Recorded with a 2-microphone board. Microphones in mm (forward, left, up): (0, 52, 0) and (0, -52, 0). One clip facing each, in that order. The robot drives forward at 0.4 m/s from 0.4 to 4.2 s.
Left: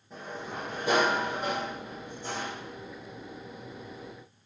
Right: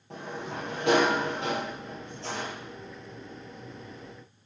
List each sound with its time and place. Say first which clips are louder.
0.1 s a sliding door: right 2 dB; 75° right (ahead or behind), 2.5 m; by 2.5 s 80° right, 2.5 m